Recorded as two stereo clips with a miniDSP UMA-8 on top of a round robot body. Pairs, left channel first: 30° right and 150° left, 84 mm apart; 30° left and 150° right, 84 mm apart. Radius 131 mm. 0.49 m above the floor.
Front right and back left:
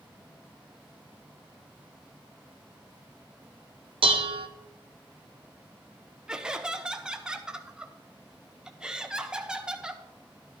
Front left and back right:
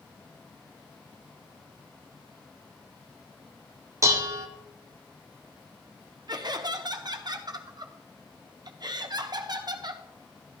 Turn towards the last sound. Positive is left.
turn(degrees=-130)